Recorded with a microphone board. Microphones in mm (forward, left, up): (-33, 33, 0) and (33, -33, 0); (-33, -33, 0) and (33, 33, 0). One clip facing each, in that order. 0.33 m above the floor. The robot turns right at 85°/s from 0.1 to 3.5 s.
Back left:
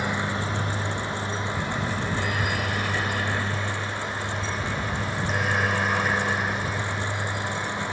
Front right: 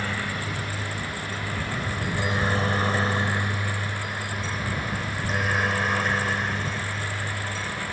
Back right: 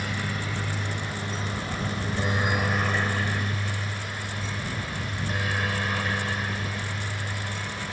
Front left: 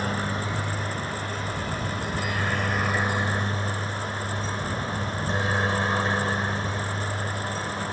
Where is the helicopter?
70° left; by 7.9 s 75° left.